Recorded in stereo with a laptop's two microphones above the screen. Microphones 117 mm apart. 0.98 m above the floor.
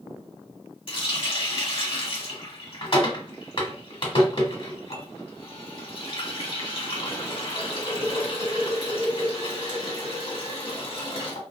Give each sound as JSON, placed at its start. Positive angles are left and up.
{"t": 0.9, "sound": "a running tap", "side_deg": 50, "distance_m": 1.4}